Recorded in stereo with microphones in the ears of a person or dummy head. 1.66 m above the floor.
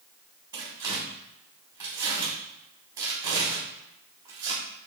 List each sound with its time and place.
0.5 s tearing paper: 20° right (ahead or behind), 1.2 m